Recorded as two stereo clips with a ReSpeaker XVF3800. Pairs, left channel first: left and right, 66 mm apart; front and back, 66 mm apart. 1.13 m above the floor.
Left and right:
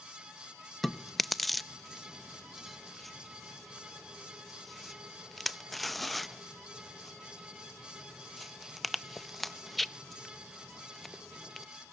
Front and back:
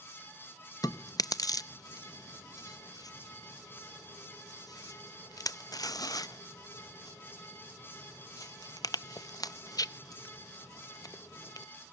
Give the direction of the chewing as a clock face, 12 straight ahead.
12 o'clock.